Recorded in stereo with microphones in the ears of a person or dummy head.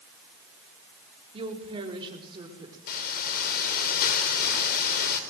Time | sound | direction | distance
1.3 | a woman speaking | 30° right (ahead or behind) | 4 m
2.9 | a hiss | 55° left (ahead or behind) | 4 m